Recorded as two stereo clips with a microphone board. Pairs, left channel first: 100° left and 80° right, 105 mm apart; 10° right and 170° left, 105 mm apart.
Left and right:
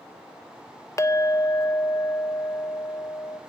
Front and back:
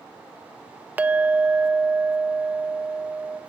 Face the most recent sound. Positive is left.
turn(degrees=120)